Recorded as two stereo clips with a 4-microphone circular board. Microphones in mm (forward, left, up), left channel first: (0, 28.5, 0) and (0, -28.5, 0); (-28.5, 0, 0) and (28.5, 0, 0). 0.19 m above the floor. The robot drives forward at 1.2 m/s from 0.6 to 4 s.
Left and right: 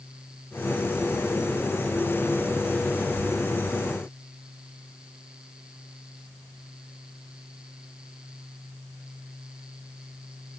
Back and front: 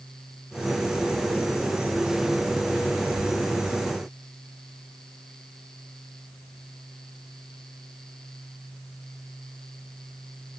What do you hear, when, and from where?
Only background noise.